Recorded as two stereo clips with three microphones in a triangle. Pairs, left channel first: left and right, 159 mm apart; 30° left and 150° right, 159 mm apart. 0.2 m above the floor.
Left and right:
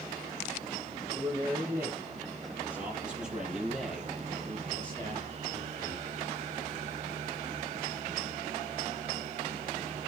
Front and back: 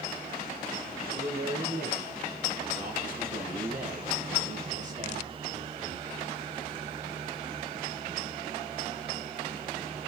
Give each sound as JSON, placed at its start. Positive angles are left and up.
{"t": 1.1, "sound": "a man speaking", "azimuth_deg": -160, "distance_m": 5.5}